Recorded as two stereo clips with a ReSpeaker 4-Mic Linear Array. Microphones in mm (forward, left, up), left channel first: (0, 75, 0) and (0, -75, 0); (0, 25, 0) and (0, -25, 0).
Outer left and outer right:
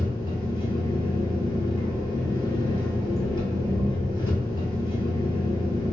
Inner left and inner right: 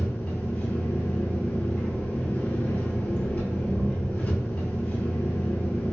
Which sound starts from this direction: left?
An engine running, at 0.0 s.